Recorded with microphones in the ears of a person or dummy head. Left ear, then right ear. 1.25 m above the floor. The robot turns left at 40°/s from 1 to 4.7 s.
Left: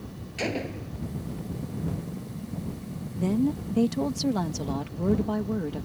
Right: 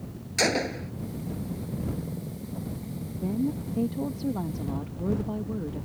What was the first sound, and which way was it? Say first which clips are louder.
A gunshot: right 6 dB; 45° right (ahead or behind).